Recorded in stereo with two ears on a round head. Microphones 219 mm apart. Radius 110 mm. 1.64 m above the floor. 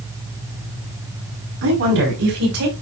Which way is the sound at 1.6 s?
60° right (ahead or behind).